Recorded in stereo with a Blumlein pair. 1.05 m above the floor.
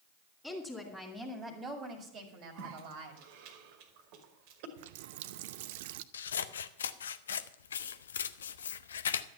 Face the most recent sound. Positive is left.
turn(degrees=65)